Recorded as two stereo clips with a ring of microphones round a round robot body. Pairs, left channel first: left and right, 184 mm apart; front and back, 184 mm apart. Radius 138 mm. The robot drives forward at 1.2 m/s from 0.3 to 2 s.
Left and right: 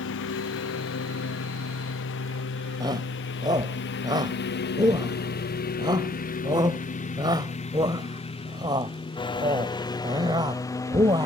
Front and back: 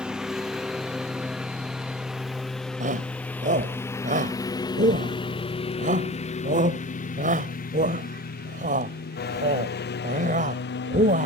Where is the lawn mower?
95° left; by 11.2 s 15° left.